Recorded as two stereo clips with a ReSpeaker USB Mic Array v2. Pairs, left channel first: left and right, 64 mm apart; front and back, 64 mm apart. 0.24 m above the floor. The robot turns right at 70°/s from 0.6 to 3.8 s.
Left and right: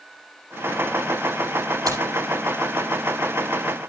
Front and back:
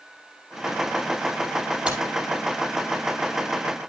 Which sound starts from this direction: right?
Keys jangling, at 1.9 s.